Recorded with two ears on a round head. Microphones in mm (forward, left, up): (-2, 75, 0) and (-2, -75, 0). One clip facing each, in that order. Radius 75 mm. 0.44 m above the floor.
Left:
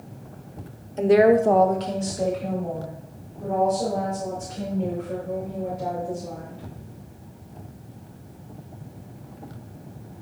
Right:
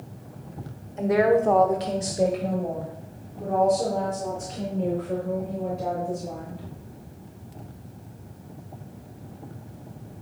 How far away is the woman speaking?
About 1.1 m.